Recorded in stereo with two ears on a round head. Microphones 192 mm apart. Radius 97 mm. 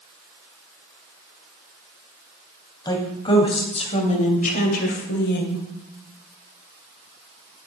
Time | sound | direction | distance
2.9 | a woman speaking | 20° left (ahead or behind) | 3 m